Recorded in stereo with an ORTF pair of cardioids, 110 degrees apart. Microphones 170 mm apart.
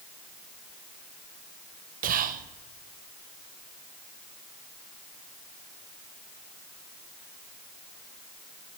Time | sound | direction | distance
2.0 | whispering | 55° right | 0.7 m